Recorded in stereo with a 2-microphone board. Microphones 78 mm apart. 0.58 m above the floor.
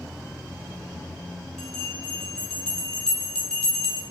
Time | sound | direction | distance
1.6 | a bell | 10° left (ahead or behind) | 1.3 m